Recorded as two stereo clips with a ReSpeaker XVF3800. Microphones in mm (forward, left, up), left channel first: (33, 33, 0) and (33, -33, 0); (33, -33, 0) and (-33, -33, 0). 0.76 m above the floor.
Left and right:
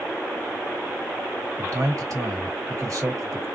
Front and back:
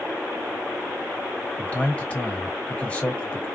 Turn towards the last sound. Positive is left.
turn(degrees=-70)